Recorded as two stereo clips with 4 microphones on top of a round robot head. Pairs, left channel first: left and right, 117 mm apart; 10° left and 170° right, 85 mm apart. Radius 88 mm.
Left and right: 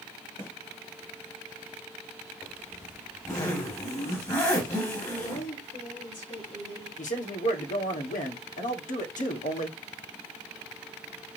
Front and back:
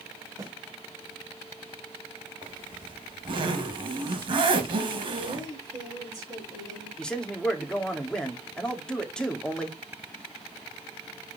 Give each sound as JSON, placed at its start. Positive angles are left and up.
{"t": 0.4, "sound": "a snare drum", "azimuth_deg": 140, "distance_m": 4.0}
{"t": 2.4, "sound": "a zipper", "azimuth_deg": 160, "distance_m": 3.0}
{"t": 5.3, "sound": "a woman speaking", "azimuth_deg": 140, "distance_m": 5.5}
{"t": 7.0, "sound": "a man speaking", "azimuth_deg": 90, "distance_m": 2.5}